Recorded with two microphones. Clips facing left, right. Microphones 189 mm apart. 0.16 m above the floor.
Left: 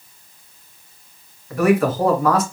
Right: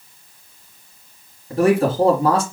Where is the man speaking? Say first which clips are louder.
Right 1 dB; 30° right (ahead or behind), 1.4 m.